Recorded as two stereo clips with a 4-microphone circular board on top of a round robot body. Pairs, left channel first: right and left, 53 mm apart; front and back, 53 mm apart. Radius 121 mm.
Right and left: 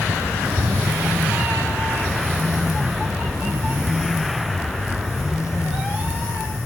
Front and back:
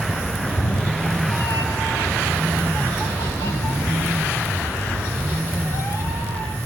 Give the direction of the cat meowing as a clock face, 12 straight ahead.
10 o'clock.